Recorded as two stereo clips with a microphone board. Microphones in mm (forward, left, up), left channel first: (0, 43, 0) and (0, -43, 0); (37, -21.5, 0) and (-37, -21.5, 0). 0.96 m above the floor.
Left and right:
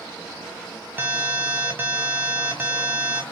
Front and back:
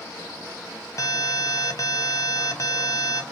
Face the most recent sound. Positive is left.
turn(degrees=-30)